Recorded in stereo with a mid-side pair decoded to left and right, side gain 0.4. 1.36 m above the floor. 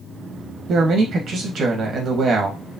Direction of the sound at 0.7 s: 65° right.